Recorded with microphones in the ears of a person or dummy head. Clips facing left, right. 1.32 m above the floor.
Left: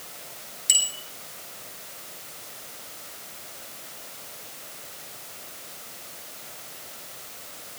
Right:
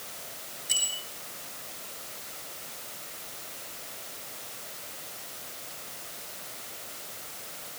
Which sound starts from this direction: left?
A bicycle bell, at 0.7 s.